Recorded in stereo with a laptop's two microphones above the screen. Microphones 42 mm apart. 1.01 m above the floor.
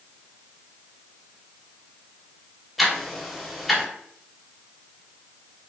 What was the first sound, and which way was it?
Ticking, centre (ahead or behind).